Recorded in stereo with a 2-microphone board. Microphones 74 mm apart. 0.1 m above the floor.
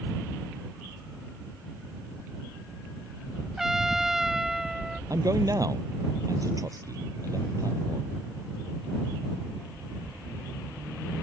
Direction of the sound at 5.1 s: 50° right (ahead or behind).